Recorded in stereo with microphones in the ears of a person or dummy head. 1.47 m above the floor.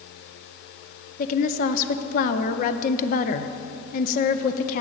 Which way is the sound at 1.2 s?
45° left (ahead or behind).